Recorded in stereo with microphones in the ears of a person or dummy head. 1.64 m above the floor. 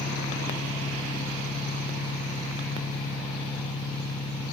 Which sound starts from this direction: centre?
An engine running, at 0.0 s.